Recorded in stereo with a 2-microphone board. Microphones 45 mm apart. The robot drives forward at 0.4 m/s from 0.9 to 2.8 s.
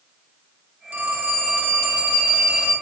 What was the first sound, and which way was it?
A phone ringing, 40° right (ahead or behind).